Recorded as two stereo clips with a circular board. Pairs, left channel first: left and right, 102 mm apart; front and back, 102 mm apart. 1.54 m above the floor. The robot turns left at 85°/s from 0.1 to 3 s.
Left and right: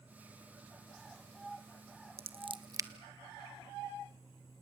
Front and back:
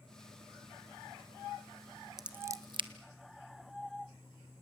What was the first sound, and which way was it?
Scissors, 95° right.